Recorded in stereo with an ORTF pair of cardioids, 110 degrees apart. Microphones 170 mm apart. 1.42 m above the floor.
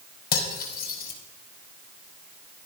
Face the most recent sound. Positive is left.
turn(degrees=60)